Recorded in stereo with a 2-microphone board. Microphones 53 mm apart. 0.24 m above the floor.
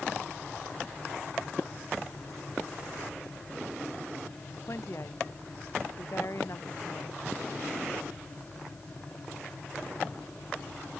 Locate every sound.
4.7 s a woman speaking: 60° left (ahead or behind)